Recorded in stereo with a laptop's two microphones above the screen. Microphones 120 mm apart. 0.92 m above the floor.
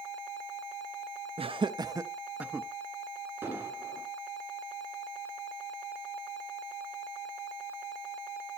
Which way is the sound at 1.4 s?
50° right (ahead or behind).